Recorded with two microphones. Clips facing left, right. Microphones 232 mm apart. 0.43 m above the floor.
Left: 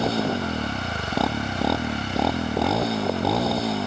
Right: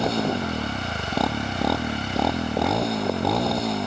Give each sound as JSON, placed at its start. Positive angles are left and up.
{"t": 0.0, "sound": "a motorcycle", "side_deg": 0}